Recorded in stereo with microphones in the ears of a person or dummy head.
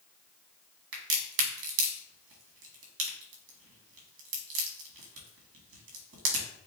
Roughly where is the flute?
No flute in this recording.